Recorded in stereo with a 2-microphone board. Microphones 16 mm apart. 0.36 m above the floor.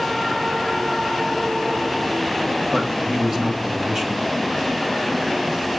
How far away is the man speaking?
About 1.7 m.